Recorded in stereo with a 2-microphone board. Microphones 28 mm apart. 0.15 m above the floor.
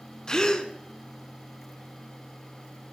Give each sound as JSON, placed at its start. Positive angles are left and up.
{"t": 0.3, "sound": "a gasp", "side_deg": 25, "distance_m": 0.8}